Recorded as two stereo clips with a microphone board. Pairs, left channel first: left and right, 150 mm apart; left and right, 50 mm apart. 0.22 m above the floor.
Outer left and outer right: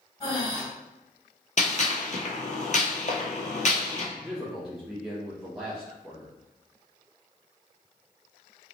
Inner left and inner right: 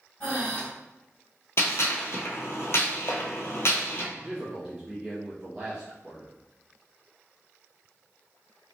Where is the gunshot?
55° left (ahead or behind), 0.8 m.